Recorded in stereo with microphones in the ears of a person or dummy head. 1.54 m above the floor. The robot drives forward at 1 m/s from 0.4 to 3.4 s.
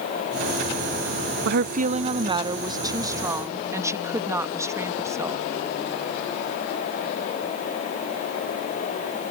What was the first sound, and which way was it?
A woman speaking, 65° right (ahead or behind).